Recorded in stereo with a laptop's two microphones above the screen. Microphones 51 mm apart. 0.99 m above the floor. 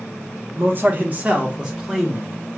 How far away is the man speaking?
About 0.8 m.